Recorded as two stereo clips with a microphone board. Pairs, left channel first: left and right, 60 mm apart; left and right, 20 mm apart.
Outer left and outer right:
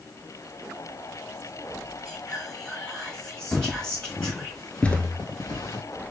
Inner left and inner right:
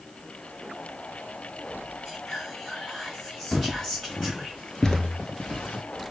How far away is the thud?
About 0.8 m.